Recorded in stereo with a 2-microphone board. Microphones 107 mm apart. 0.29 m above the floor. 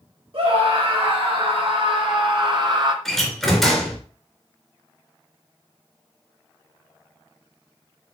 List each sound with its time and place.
0.3 s a scream: 55° right (ahead or behind), 5 m; by 3.0 s 45° right (ahead or behind), 2.5 m
3.0 s a door slam: centre (ahead or behind), 3 m